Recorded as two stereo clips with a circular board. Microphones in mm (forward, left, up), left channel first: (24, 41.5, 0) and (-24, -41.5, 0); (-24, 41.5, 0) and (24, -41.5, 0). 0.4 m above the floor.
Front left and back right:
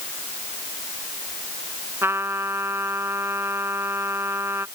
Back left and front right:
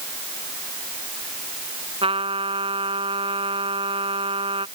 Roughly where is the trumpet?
Ahead right.